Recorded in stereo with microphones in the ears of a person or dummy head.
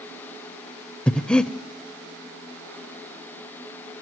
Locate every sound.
1.1 s breathing: 10° left (ahead or behind), 0.6 m